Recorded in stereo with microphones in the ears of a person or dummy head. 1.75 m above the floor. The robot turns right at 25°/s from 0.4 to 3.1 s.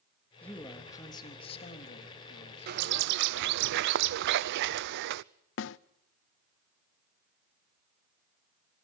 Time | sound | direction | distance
0.4 | a man speaking | 5° left | 3.5 m
2.7 | a bird | 50° right (ahead or behind) | 0.6 m
5.6 | a snare drum | 75° left (ahead or behind) | 0.6 m